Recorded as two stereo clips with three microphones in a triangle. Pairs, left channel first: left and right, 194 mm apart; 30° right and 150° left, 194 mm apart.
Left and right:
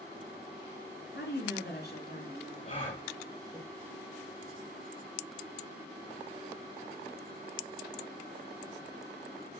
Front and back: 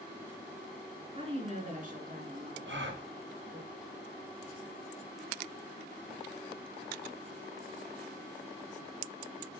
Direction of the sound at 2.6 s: 145° left.